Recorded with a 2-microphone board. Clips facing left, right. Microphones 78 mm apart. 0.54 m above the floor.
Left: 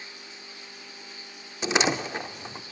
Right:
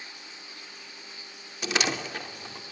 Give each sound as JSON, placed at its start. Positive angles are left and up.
{"t": 1.6, "sound": "a door slam", "side_deg": 25, "distance_m": 0.6}